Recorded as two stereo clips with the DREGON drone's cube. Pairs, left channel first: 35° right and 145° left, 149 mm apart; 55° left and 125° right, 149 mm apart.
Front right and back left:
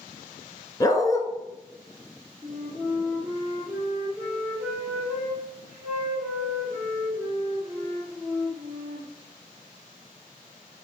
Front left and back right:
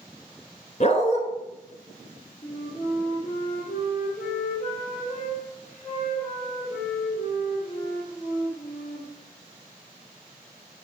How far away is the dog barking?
About 0.9 m.